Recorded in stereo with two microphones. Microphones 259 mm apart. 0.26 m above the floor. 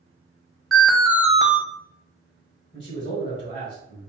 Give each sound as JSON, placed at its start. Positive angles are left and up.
{"t": 0.7, "sound": "an alarm", "side_deg": 0, "distance_m": 0.7}
{"t": 2.7, "sound": "a man speaking", "side_deg": 25, "distance_m": 1.2}